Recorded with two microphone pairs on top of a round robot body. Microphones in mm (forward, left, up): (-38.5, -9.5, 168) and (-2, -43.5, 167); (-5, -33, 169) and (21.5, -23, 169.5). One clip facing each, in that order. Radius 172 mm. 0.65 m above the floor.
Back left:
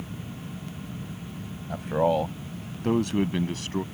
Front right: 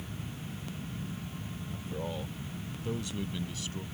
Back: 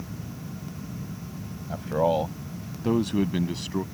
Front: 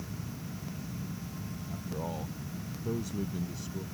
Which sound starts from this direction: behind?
A man speaking, at 1.7 s.